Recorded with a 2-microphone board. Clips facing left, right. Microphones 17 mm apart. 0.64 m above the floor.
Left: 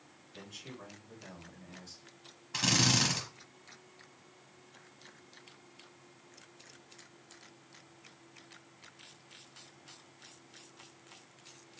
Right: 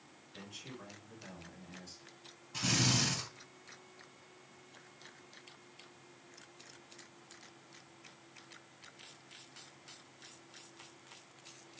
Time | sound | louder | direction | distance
0.3 | a man speaking | left 1 dB | 10° left (ahead or behind) | 6 m
2.5 | a drill | left 4 dB | 55° left (ahead or behind) | 3 m